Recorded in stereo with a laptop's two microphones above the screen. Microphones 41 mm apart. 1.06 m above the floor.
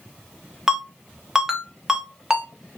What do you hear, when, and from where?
0.7 s a ringtone: 15° right (ahead or behind), 0.8 m